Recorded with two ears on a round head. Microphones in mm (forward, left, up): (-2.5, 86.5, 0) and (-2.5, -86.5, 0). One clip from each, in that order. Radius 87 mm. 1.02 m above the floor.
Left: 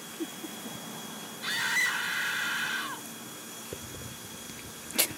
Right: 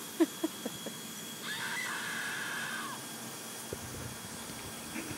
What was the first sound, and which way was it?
A scream, 55° left (ahead or behind).